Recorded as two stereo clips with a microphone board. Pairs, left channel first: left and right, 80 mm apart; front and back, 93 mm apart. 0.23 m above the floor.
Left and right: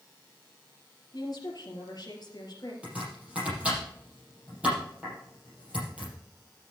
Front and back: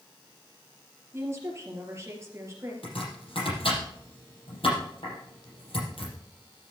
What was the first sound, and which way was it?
A woman speaking, 120° left.